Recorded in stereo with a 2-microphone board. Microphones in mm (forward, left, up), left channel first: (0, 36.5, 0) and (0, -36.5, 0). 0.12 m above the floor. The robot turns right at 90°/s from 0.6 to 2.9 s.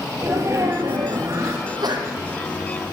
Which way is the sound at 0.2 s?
125° right.